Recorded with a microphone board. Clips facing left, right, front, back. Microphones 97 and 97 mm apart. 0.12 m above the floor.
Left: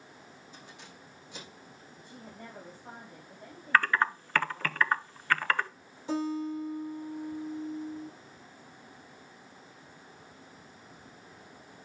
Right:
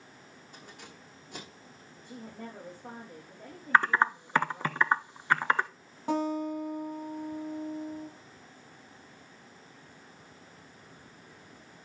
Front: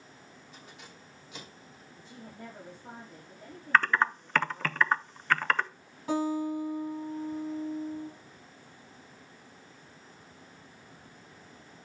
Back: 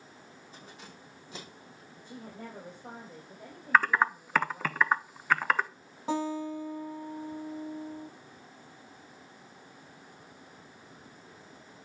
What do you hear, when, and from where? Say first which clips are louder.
0.5 s keys jangling: right 3 dB, back 2 dB; 125° right, 4.5 m
1.9 s a woman speaking: right 5 dB, back 3 dB; 140° right, 6 m
3.7 s typing on a keyboard: right 2 dB, back 1 dB; 110° right, 0.6 m
6.1 s a guitar: right 2 dB, front 2 dB; 120° right, 5.5 m